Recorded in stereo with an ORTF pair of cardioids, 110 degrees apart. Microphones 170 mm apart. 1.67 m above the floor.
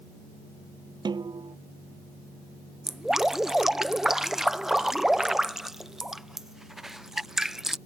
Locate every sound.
1.1 s a snare drum: 25° right
2.9 s dripping: 5° right